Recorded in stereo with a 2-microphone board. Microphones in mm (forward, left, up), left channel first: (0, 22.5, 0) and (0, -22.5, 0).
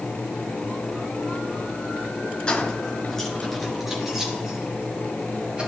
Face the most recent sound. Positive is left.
turn(degrees=-20)  # may be behind; listen again after turning